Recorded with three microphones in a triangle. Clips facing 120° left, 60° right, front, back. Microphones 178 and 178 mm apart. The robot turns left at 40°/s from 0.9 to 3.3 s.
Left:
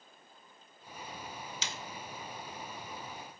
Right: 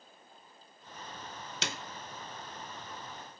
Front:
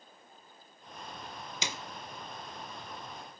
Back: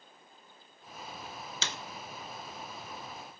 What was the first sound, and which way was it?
A snare drum, 75° right.